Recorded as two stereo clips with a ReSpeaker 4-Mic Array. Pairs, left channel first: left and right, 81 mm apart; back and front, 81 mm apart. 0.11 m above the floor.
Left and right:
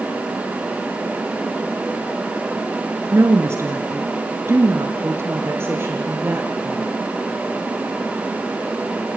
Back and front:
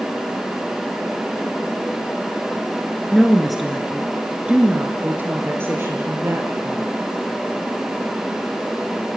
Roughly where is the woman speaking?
Right.